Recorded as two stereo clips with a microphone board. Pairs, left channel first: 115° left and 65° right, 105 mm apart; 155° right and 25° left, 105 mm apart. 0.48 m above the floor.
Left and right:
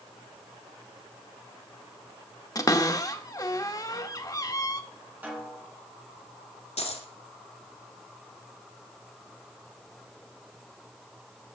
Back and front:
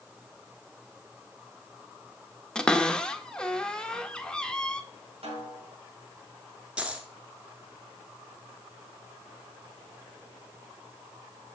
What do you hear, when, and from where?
2.5 s a cupboard door: 125° left, 0.8 m
5.2 s a snare drum: 5° left, 3.5 m
6.8 s a dropped coin: 100° left, 1.6 m